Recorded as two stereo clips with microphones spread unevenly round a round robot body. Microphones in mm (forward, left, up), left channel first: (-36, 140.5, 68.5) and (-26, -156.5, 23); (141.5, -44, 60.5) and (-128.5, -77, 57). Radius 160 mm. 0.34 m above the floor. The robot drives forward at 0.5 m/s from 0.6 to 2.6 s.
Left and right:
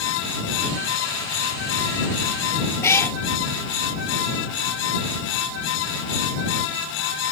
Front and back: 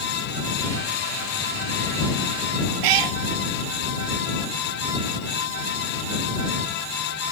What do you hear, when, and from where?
2.8 s a cat meowing: 170° left